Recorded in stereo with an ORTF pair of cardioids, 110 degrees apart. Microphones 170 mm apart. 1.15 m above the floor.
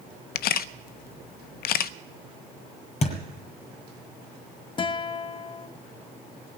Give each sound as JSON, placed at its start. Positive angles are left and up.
{"t": 0.3, "sound": "a camera shutter", "azimuth_deg": 65, "distance_m": 0.5}
{"t": 3.0, "sound": "a thud", "azimuth_deg": 40, "distance_m": 5.5}
{"t": 4.8, "sound": "a guitar", "azimuth_deg": 30, "distance_m": 1.2}